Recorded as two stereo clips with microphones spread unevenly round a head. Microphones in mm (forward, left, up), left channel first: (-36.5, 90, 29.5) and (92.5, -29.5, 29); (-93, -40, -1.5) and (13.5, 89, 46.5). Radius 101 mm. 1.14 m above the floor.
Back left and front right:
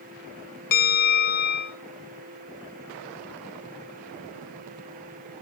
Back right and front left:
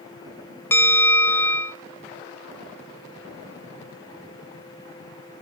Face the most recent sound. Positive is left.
turn(degrees=165)